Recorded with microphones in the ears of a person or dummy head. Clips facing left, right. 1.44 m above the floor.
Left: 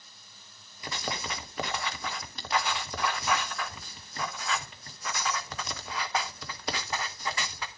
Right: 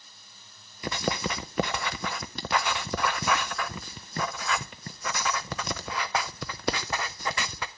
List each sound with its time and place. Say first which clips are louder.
0.8 s writing: right 7 dB; 45° right (ahead or behind), 0.6 m